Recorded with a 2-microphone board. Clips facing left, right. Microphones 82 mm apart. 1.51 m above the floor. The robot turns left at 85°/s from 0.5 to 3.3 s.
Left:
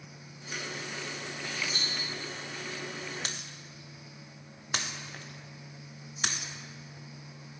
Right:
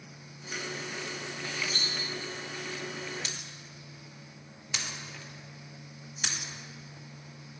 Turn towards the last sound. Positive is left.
turn(degrees=45)  # may be behind; listen again after turning